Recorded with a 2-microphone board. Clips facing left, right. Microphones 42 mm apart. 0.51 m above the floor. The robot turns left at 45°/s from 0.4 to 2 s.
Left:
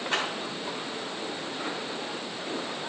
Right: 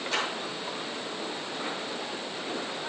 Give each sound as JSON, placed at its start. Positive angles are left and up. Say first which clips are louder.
{"t": 0.1, "sound": "a clap", "louder": "left 1 dB", "side_deg": 35, "distance_m": 3.0}